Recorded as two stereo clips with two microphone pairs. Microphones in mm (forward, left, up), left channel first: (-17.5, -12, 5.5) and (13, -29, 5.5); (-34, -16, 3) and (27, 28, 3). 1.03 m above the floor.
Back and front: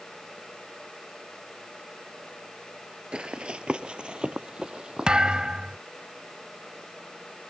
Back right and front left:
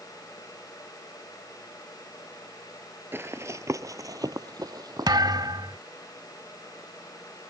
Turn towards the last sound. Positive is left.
turn(degrees=35)